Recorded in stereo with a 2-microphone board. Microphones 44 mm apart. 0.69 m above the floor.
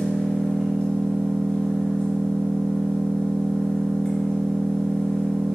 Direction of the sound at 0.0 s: 30° left (ahead or behind).